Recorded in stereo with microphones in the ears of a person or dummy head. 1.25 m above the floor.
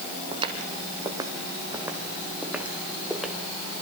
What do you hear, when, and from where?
0.3 s footsteps: 25° right (ahead or behind), 3 m; by 3.5 s 5° left (ahead or behind), 3.5 m